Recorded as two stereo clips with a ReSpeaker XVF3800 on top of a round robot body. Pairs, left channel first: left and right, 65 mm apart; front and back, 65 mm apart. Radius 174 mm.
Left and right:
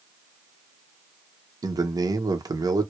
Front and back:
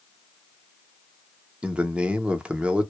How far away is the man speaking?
About 0.7 m.